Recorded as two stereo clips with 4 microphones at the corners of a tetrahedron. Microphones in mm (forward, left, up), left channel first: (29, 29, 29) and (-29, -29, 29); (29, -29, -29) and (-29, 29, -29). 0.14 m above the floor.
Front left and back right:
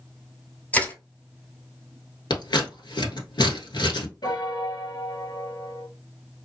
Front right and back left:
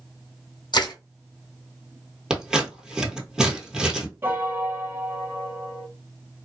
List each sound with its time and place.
0.7 s crushing: 25° right, 1.3 m
2.3 s scissors: 55° left, 1.2 m
4.2 s a piano: 75° left, 0.6 m